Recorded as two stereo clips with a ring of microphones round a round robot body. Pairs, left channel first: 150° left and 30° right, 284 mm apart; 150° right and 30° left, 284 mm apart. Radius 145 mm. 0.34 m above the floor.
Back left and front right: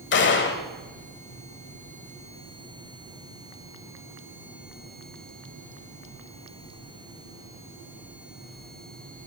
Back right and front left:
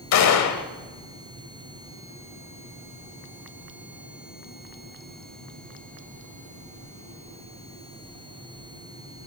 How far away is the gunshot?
About 1.0 m.